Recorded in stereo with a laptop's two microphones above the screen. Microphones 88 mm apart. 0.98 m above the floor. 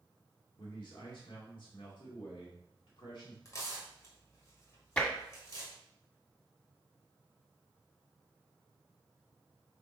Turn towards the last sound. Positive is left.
turn(degrees=15)  # may be behind; listen again after turning